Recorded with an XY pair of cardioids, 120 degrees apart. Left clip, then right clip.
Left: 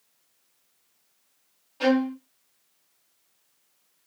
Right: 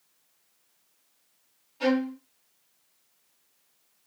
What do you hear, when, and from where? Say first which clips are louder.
1.8 s a violin: left 3 dB; 45° left, 0.9 m